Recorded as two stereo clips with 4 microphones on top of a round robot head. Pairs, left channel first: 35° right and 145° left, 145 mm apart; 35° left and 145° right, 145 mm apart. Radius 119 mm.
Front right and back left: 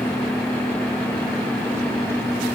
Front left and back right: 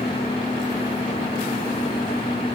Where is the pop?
No pop in this recording.